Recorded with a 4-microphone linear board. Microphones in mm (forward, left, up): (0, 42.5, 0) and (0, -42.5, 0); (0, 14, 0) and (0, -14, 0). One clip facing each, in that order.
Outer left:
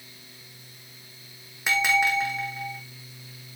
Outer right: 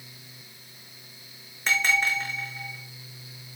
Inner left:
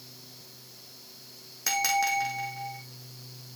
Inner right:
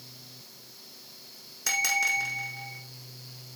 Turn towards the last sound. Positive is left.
turn(degrees=10)  # may be behind; listen again after turning